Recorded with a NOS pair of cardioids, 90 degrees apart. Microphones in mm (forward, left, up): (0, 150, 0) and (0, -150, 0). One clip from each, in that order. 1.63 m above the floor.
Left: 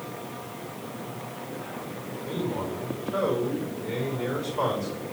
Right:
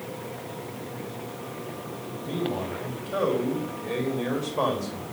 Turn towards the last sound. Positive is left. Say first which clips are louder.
# right 1 dB
turn(degrees=-50)